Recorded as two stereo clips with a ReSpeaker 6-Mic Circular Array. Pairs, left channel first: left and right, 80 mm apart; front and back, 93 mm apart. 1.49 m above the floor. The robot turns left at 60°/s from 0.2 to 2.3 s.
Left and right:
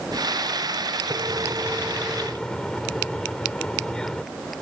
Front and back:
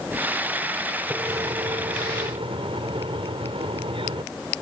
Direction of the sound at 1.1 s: 120° right.